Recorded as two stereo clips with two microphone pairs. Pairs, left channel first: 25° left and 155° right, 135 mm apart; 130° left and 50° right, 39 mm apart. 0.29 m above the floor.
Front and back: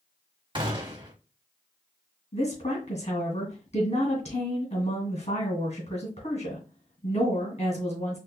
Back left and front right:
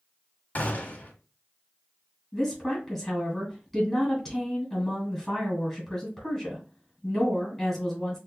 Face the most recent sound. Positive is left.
turn(degrees=35)